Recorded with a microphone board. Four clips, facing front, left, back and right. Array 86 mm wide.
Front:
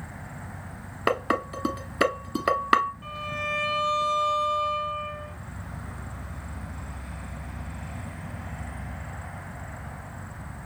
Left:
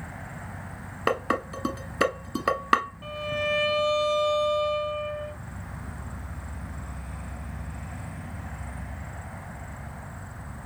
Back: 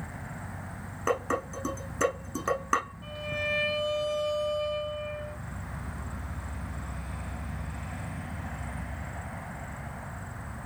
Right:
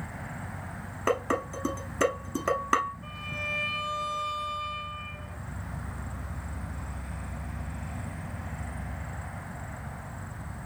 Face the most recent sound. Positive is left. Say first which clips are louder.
# left 9 dB, front 1 dB
turn(degrees=80)